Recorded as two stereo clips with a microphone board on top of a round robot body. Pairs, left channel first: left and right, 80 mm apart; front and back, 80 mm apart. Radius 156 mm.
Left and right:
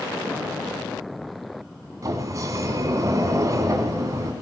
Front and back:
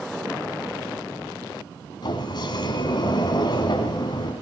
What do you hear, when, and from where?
2.0 s a sliding door: 40° right, 1.9 m